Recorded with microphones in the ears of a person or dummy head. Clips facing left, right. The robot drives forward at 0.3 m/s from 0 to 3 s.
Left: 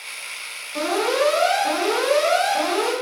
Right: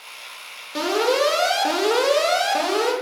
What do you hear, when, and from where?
0.8 s an alarm: 40° right (ahead or behind), 0.7 m; by 2.9 s 45° right (ahead or behind), 0.6 m